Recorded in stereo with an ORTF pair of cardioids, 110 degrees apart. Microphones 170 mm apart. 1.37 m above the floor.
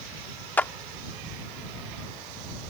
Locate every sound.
0.6 s a clap: 10° left